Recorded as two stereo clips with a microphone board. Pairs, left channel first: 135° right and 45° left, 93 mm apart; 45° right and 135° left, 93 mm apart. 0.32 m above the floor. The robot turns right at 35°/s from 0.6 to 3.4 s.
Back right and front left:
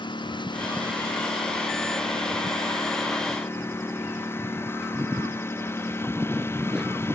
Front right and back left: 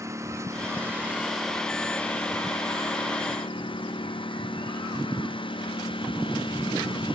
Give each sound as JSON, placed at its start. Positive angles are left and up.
{"t": 0.0, "sound": "a lawn mower", "azimuth_deg": -170}